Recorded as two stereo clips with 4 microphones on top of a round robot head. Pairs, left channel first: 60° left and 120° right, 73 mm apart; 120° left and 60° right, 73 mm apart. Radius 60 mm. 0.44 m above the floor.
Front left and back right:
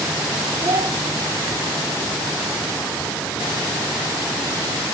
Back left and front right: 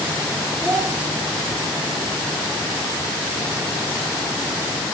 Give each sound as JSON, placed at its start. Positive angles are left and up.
{"t": 0.6, "sound": "a child speaking", "azimuth_deg": -155, "distance_m": 1.4}